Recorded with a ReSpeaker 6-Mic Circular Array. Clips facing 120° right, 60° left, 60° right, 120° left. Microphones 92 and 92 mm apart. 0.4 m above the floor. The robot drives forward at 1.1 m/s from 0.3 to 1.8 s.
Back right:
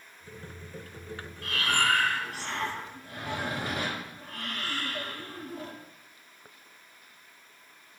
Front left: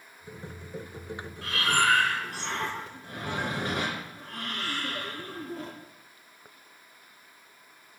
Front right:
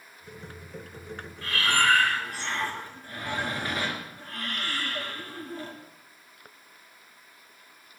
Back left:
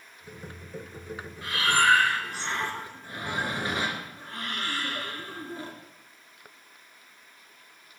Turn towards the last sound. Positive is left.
turn(degrees=55)